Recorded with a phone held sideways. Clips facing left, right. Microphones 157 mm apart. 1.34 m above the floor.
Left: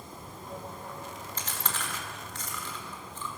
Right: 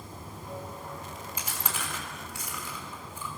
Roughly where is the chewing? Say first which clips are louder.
Even; centre.